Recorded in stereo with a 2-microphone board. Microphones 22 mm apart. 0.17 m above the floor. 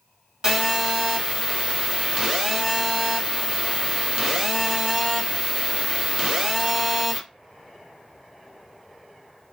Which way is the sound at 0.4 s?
20° right (ahead or behind).